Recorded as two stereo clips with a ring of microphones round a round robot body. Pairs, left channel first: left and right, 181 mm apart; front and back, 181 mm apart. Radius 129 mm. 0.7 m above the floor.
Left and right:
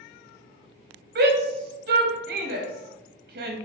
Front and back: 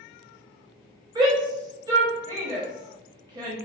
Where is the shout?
110° right, 0.8 m.